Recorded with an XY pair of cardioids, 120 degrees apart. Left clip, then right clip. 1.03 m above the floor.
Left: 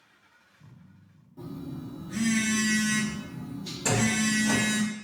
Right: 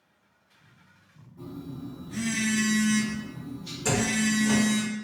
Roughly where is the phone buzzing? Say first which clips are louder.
Even; ahead left.